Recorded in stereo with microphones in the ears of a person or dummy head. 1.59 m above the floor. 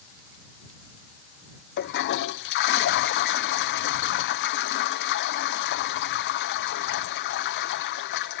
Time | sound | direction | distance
1.8 | a toilet flushing | 65° left (ahead or behind) | ?